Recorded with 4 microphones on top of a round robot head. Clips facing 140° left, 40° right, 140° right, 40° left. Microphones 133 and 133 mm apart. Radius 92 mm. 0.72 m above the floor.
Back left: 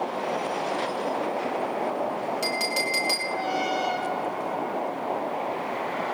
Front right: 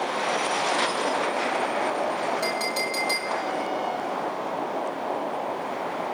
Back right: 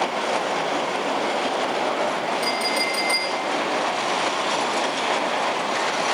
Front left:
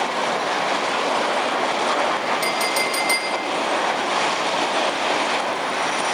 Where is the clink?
65° left, 5.5 m.